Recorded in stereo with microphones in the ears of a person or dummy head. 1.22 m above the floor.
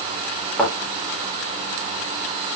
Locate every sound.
0.6 s a thud: 5° left (ahead or behind), 5 m